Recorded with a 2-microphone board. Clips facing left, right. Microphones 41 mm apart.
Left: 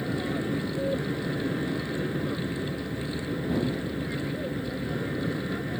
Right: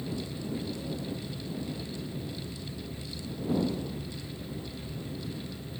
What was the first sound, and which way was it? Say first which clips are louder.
An aircraft: left 7 dB; 65° left (ahead or behind).